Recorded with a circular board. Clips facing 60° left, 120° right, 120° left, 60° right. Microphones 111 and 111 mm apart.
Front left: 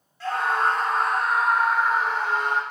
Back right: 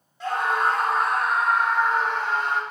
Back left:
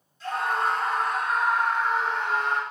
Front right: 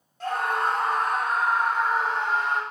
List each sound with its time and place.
0.2 s a scream: 50° right, 2.5 m; by 2.6 s 10° right, 3 m